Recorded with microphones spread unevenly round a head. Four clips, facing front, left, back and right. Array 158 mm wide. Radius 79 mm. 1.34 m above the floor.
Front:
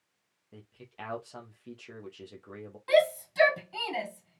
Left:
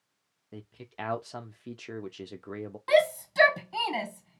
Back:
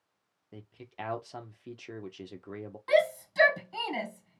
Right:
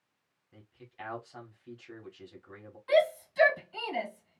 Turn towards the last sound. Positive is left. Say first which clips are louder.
# left 2 dB, front 1 dB
turn(degrees=90)